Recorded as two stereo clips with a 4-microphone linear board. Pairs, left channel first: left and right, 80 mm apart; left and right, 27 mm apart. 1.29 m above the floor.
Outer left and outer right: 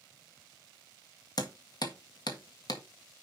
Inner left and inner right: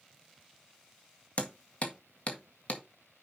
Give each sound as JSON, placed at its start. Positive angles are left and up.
{"t": 1.4, "sound": "hammering", "side_deg": 60, "distance_m": 1.7}